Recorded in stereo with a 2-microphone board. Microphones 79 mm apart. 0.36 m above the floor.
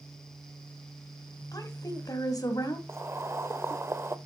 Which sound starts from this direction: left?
A woman speaking, at 1.5 s.